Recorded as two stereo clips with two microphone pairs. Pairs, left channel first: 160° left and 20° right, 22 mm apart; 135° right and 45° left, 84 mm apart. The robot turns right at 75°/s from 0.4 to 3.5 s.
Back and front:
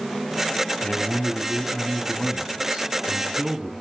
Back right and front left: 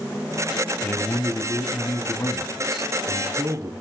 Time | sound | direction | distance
0.8 | a man speaking | 170° left | 0.7 m